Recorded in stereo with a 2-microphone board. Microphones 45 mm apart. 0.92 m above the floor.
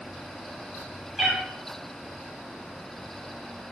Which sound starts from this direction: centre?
A cat meowing, at 1.2 s.